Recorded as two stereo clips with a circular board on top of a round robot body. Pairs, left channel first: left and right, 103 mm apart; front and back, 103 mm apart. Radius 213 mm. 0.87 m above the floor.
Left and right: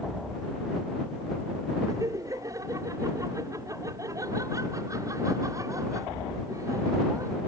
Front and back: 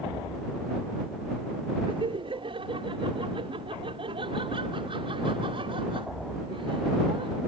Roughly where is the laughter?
Behind right.